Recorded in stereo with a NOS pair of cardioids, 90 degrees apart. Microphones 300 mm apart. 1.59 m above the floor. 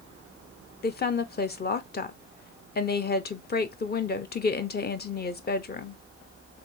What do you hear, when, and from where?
0.8 s a woman speaking: 35° left, 0.8 m